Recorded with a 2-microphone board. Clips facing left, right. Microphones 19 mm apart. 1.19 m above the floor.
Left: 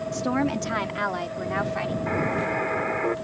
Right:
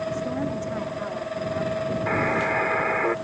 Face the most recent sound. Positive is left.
turn(degrees=-20)  # may be behind; listen again after turning